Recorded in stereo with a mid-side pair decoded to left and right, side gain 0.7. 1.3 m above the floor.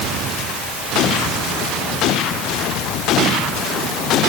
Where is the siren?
No siren in this recording.